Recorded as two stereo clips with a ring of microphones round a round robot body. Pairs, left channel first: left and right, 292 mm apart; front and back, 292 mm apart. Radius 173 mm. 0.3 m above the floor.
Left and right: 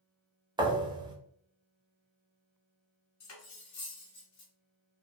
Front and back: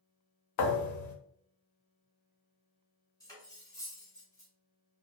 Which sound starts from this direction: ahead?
A thud, at 0.6 s.